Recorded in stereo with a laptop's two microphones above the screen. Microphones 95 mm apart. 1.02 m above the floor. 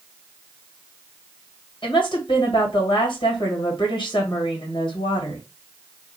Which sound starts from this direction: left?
A woman speaking, at 1.8 s.